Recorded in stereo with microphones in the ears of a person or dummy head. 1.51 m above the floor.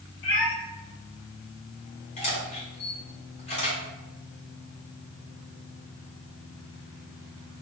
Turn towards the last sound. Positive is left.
turn(degrees=30)  # may be behind; listen again after turning